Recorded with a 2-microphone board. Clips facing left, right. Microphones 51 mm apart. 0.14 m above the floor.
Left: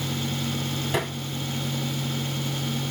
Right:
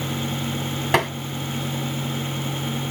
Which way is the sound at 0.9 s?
70° right (ahead or behind).